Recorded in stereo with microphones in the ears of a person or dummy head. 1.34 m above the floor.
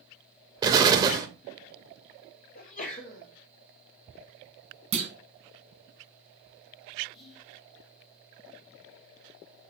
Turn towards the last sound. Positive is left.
turn(degrees=30)  # may be behind; listen again after turning